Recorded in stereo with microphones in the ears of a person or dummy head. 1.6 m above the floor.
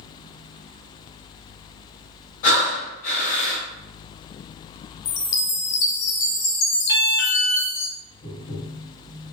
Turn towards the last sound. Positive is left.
turn(degrees=45)  # may be behind; listen again after turning